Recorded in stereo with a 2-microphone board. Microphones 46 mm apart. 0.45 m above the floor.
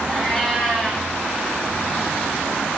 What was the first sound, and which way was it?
A cat meowing, centre (ahead or behind).